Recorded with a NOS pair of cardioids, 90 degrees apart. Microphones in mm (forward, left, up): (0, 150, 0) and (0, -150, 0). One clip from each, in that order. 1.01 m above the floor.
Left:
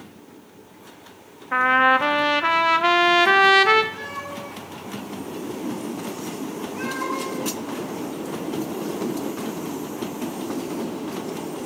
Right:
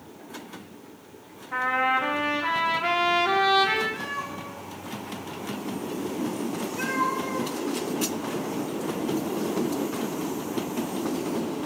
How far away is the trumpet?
About 1.2 m.